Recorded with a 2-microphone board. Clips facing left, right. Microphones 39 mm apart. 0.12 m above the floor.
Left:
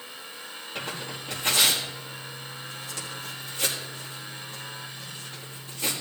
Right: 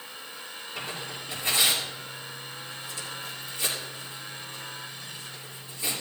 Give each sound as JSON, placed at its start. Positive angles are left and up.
{"t": 0.8, "sound": "tearing paper", "side_deg": 70, "distance_m": 5.0}